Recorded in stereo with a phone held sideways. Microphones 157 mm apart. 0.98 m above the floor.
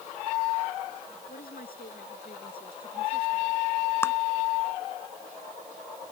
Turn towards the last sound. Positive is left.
turn(degrees=15)  # may be behind; listen again after turning